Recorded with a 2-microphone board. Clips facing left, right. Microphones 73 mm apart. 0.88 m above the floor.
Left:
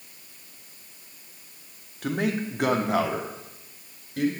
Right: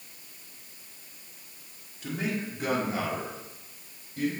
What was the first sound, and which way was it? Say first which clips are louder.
A man speaking: left 5 dB; 55° left (ahead or behind).